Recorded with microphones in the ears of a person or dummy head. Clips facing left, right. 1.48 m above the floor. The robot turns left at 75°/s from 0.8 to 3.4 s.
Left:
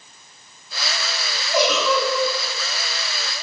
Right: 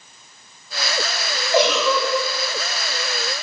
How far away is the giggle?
About 2.5 m.